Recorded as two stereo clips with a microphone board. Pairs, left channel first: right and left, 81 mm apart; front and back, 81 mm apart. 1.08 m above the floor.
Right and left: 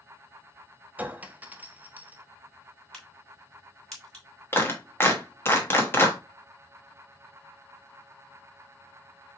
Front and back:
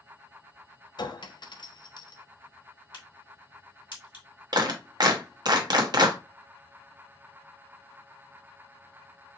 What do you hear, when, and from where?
1.0 s a clink: 20° left, 0.5 m
2.9 s a crack: 10° right, 2.5 m
4.5 s a clap: 150° right, 0.9 m